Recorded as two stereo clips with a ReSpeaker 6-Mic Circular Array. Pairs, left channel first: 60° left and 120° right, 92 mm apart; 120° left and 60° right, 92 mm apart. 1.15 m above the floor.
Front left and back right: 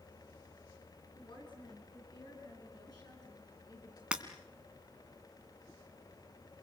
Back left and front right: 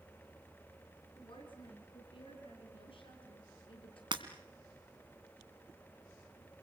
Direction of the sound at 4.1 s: 40° right.